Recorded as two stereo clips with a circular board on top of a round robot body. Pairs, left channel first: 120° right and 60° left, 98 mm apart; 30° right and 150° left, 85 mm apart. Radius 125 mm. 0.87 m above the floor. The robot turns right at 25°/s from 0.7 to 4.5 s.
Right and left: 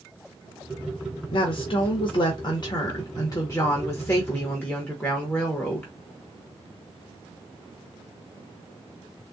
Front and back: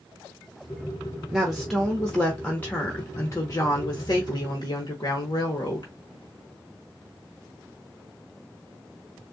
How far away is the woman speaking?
About 1.1 m.